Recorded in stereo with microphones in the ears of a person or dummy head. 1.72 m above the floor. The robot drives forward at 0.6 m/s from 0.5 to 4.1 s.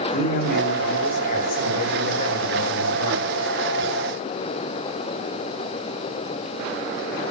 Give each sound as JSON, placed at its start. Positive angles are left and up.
{"t": 0.1, "sound": "a man speaking", "side_deg": 55, "distance_m": 1.7}